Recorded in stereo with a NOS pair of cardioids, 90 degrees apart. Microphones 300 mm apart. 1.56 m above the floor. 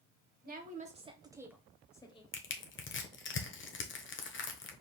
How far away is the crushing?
About 1.0 m.